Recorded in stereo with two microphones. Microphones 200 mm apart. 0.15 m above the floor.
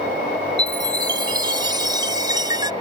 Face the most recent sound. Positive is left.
turn(degrees=-20)  # may be behind; listen again after turning